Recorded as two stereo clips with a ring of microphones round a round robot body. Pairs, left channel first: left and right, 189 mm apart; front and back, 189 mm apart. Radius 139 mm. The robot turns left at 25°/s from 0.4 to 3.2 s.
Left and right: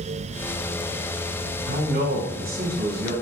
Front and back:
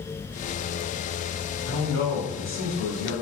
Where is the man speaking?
80° right, 2.0 m; by 3.1 s 115° right, 2.0 m.